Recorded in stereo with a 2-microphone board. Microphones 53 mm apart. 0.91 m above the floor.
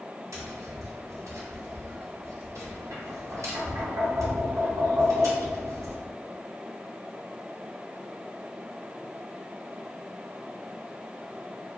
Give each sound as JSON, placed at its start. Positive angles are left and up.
{"t": 0.3, "sound": "tapping", "side_deg": -75, "distance_m": 0.9}